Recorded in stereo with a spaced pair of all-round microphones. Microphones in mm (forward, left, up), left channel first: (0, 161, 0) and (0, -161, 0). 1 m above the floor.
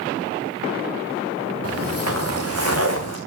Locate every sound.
1.6 s footsteps: 50° right (ahead or behind), 4 m; by 3.2 s 55° right (ahead or behind), 3 m